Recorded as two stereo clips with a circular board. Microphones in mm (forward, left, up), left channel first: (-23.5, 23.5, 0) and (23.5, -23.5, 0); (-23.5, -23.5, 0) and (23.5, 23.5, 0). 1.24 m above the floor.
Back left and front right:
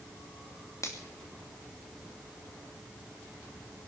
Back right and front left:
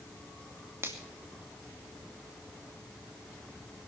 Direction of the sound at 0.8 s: 95° left.